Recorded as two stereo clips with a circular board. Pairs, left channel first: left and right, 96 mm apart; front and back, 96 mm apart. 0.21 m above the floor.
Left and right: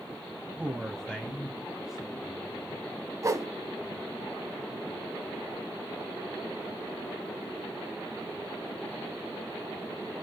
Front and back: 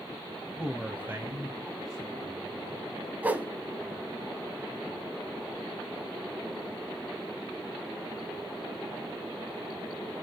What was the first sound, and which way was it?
A man speaking, 60° right.